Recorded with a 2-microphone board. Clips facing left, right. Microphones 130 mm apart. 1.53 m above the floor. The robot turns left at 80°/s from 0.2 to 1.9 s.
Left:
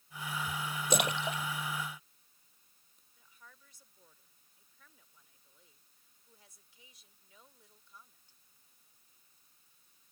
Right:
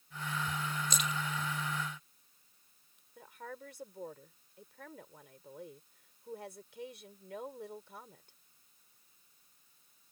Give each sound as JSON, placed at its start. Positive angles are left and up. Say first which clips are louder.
{"t": 0.9, "sound": "a splash", "louder": "left 6 dB", "side_deg": 60}
{"t": 3.2, "sound": "a woman speaking", "louder": "right 16 dB", "side_deg": -70}